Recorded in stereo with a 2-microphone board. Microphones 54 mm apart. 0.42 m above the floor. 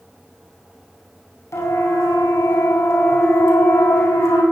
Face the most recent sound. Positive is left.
turn(degrees=65)  # may be behind; listen again after turning